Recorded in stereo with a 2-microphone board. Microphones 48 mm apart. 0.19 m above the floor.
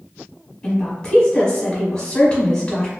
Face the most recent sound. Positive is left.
turn(degrees=20)  # may be behind; listen again after turning